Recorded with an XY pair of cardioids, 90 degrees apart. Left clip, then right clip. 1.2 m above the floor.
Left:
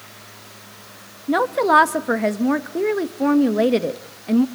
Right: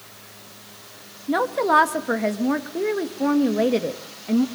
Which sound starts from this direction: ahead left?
A woman speaking, at 1.3 s.